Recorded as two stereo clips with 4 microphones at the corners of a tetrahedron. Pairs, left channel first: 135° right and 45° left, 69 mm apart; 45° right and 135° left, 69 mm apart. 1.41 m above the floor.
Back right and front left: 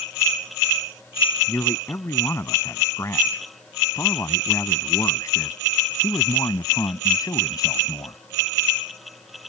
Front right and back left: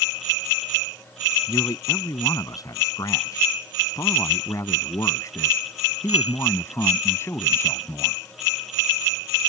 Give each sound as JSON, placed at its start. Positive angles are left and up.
{"t": 1.5, "sound": "a man speaking", "azimuth_deg": -80}